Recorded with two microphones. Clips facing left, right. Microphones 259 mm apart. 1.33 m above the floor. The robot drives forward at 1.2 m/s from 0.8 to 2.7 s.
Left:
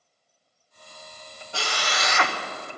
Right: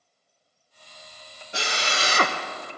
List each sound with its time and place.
1.5 s a drill: 20° right (ahead or behind), 1.4 m; by 2.4 s 55° right (ahead or behind), 0.5 m